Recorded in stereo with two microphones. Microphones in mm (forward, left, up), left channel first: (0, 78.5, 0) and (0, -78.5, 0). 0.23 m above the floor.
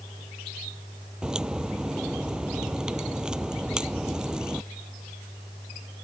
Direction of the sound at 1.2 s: 5° right (ahead or behind).